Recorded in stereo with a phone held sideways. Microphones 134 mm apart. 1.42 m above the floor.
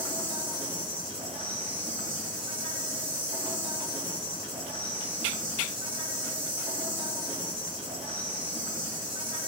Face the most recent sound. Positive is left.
turn(degrees=-45)  # may be behind; listen again after turning